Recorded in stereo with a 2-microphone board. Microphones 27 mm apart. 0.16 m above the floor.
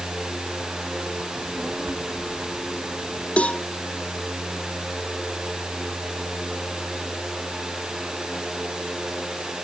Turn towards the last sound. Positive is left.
turn(degrees=50)  # may be behind; listen again after turning